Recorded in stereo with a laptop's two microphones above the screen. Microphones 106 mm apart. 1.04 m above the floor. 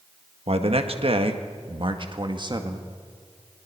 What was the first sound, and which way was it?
A man speaking, 65° right (ahead or behind).